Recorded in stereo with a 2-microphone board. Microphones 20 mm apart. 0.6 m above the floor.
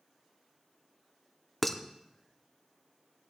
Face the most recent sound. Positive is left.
turn(degrees=10)  # may be behind; listen again after turning